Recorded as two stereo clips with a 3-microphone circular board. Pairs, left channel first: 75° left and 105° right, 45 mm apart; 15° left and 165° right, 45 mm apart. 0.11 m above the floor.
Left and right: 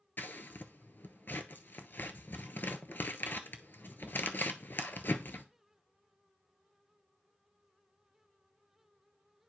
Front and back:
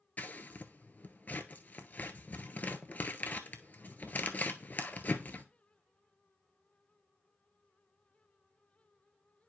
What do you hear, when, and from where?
0.2 s scissors: 55° left, 0.7 m